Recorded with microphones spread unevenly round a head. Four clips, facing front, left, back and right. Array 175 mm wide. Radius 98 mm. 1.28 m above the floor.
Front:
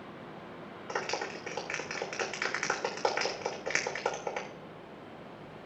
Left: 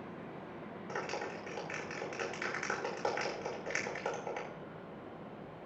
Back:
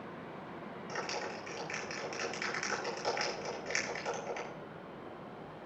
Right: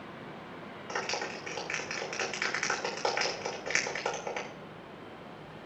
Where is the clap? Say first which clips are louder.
Right 4 dB, front 5 dB; 15° right, 3 m.